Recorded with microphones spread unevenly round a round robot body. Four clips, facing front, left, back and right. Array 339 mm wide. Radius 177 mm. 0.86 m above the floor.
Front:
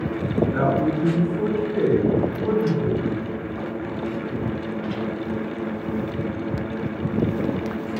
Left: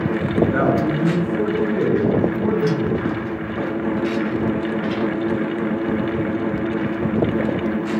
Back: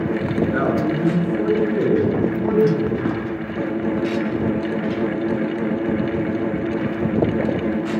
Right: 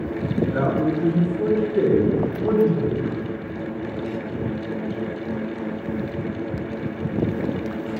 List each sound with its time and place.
0.5 s a man speaking: 110° left, 5 m; by 3.0 s 135° left, 6.5 m